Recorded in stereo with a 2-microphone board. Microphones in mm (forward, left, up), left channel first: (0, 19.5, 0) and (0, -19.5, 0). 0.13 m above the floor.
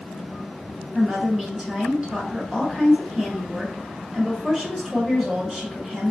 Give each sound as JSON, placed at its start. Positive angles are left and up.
{"t": 0.9, "sound": "a woman speaking", "side_deg": -25, "distance_m": 1.4}